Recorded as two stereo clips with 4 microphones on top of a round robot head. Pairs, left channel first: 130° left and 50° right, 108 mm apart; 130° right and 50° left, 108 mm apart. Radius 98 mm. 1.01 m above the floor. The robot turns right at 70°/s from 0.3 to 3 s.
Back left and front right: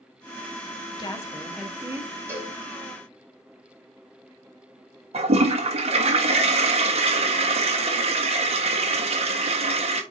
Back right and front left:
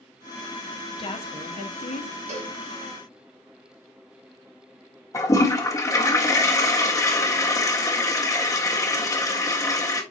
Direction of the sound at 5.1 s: 70° right.